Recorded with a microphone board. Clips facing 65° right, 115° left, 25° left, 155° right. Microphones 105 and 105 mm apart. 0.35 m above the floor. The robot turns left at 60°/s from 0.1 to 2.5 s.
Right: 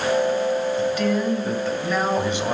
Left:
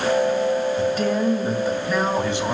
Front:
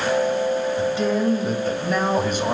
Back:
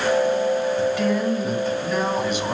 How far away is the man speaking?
About 1.9 m.